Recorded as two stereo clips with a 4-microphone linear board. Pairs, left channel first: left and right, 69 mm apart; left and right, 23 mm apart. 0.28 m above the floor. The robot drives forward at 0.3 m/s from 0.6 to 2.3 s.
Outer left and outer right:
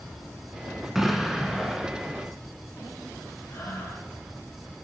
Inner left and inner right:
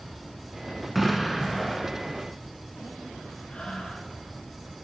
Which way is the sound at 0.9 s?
5° right (ahead or behind).